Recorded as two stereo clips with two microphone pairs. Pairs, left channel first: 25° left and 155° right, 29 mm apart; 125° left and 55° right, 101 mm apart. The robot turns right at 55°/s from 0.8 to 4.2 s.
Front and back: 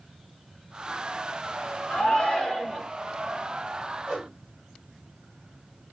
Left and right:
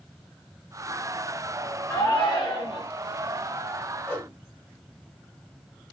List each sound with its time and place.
1.9 s a shout: 65° left, 1.9 m; by 2.9 s 120° left, 1.9 m
4.1 s a whoosh: straight behind, 1.6 m; by 4.3 s 175° right, 1.6 m